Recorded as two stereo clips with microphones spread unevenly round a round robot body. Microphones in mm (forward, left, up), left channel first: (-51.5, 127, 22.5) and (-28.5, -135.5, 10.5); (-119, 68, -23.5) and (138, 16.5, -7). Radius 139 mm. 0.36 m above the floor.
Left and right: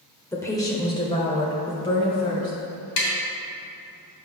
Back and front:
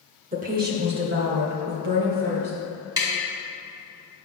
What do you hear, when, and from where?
0.3 s a woman speaking: 20° left, 1.0 m; by 2.5 s 25° left, 2 m
3.0 s tapping: 65° left, 2 m